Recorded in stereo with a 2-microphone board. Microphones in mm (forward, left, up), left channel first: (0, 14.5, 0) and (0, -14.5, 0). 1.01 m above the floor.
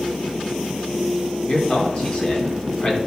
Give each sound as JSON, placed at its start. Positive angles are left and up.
{"t": 1.5, "sound": "a man speaking", "side_deg": 35, "distance_m": 3.0}